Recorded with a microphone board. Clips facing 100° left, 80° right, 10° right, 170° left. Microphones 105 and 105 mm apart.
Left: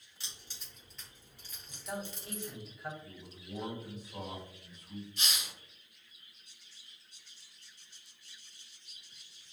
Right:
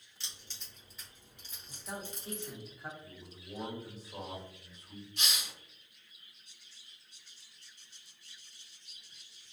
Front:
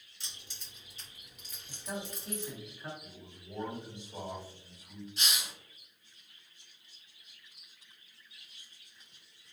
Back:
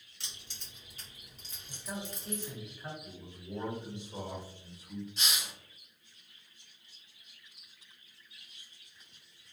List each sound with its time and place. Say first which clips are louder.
0.2 s keys jangling: even, back 1 dB; 175° left, 1.4 m; by 2.5 s 80° right, 1.1 m
1.7 s a man speaking: left 3 dB, front 1 dB; 100° right, 1.0 m
3.0 s a man speaking: left 1 dB, back 3 dB; 135° right, 1.6 m
5.2 s a hiss: right 4 dB, even; 100° right, 1.4 m